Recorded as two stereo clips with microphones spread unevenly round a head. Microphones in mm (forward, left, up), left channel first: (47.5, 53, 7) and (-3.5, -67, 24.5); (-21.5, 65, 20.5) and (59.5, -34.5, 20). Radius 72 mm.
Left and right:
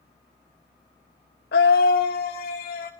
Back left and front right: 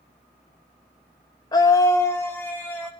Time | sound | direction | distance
1.5 | a scream | 70° left | 0.8 m